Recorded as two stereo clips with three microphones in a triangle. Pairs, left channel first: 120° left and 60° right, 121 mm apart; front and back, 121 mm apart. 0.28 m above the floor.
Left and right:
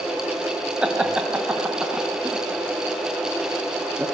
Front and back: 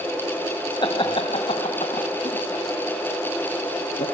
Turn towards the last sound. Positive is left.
turn(degrees=20)